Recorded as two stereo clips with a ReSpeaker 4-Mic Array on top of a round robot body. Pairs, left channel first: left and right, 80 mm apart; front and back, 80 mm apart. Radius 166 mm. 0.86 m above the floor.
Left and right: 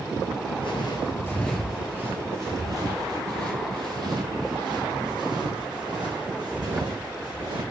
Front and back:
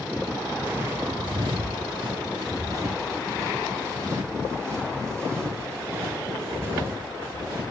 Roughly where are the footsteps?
Left.